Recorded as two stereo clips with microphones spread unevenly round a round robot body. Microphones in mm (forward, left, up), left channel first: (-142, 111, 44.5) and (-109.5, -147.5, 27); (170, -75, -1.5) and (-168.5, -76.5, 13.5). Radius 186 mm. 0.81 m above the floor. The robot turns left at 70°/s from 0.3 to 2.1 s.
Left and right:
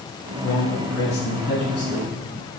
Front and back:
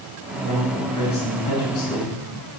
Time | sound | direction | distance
0.4 | a man speaking | 115° left | 5 m